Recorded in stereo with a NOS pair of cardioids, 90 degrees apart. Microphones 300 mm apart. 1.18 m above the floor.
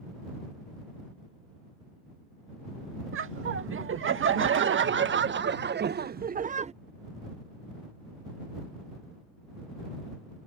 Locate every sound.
3.1 s laughter: 45° right; by 6.7 s 35° right